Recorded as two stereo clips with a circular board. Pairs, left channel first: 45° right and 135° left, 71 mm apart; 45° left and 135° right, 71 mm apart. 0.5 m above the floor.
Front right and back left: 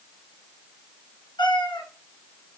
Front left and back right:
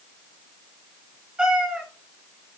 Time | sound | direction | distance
1.4 | a cat meowing | 50° right | 3 m